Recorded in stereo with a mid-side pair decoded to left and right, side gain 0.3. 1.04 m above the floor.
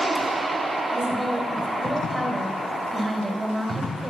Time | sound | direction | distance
0.9 | a woman speaking | 15° right | 3.5 m